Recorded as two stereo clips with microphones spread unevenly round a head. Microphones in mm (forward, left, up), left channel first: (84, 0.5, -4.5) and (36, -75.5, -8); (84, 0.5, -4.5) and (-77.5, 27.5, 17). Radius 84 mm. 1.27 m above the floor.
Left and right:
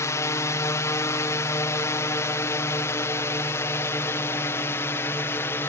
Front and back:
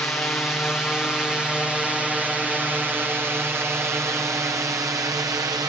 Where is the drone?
65° left; by 5.7 s 105° left.